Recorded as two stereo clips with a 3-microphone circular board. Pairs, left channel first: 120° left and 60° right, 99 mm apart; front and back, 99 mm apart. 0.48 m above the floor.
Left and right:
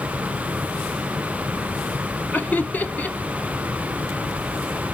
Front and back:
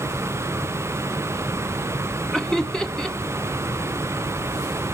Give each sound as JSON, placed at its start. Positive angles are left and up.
{"t": 2.3, "sound": "laughter", "azimuth_deg": 75, "distance_m": 0.7}